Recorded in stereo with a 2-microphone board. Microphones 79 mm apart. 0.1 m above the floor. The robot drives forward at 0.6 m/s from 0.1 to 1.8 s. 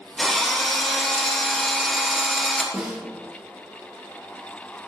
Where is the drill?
5° left (ahead or behind), 3 m.